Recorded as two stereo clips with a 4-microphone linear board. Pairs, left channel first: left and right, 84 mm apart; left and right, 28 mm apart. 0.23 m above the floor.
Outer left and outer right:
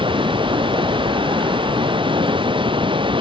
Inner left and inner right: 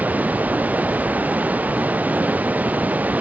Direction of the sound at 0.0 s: 80° right.